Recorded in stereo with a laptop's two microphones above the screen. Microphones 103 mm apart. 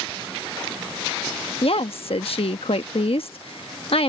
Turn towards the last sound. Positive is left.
turn(degrees=65)  # may be behind; listen again after turning